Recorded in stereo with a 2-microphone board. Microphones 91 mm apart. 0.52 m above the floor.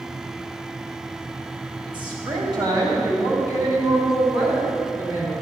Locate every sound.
1.9 s a woman speaking: 55° right (ahead or behind), 2.5 m; by 5.3 s 35° right (ahead or behind), 5.5 m